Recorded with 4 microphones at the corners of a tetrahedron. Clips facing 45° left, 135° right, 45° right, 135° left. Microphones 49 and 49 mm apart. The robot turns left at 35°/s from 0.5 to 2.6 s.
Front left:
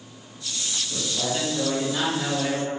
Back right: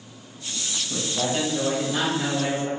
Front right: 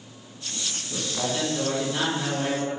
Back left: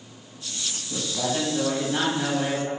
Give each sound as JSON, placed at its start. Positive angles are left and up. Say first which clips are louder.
{"t": 0.9, "sound": "a man speaking", "louder": "back right 3 dB, back left 2 dB", "azimuth_deg": -150, "distance_m": 1.1}